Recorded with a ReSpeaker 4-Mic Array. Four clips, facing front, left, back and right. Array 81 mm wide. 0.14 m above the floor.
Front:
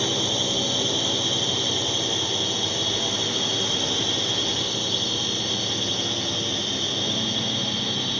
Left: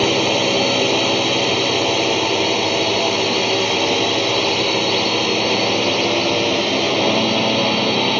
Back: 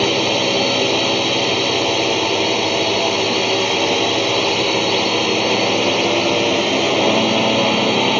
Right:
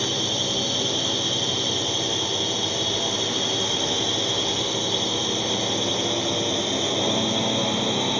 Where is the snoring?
I don't hear snoring.